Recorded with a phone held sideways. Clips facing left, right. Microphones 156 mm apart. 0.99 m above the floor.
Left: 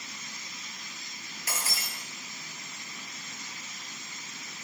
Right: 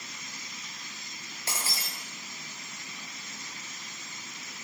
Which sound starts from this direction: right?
Breaking glass, at 1.5 s.